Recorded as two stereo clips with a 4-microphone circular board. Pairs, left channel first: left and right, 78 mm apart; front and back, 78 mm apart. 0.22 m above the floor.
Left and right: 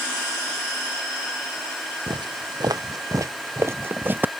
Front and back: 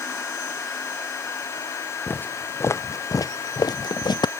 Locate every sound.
2.1 s footsteps: 70° right; by 4.3 s 20° right